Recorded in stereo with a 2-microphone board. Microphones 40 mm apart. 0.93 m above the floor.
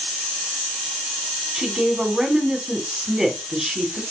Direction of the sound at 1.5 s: 10° right (ahead or behind).